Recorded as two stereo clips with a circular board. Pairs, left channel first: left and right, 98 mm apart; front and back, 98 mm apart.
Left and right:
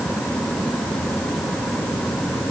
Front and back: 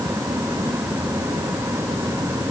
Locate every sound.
Only background noise.